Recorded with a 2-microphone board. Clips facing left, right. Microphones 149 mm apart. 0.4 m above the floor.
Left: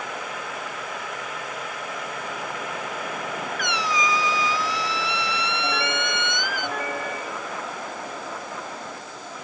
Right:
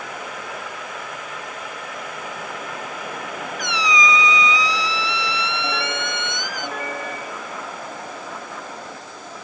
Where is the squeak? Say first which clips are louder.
Right 4 dB; 60° left (ahead or behind).